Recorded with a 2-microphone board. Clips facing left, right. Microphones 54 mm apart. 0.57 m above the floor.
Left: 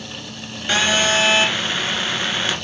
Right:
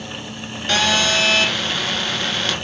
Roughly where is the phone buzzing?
Centre.